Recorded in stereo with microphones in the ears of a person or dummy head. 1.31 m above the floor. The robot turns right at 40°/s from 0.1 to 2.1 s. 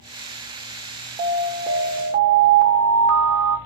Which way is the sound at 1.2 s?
165° right.